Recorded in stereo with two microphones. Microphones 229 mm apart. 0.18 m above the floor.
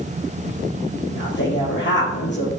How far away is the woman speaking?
About 4 m.